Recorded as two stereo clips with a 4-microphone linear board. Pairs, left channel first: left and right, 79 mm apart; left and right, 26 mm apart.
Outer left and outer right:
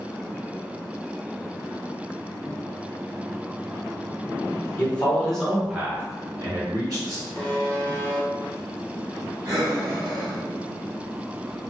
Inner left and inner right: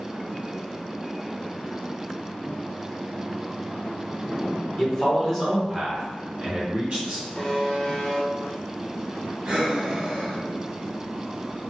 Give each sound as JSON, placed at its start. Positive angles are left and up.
{"t": 4.8, "sound": "a man speaking", "side_deg": 20, "distance_m": 1.2}
{"t": 7.3, "sound": "a buzzer", "side_deg": 25, "distance_m": 0.8}
{"t": 9.4, "sound": "breathing", "side_deg": -50, "distance_m": 1.3}